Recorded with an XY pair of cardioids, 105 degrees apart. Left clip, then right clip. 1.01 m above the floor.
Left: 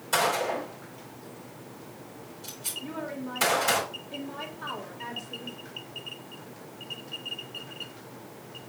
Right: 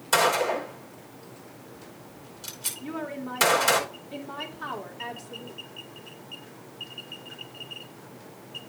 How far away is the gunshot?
About 3.5 m.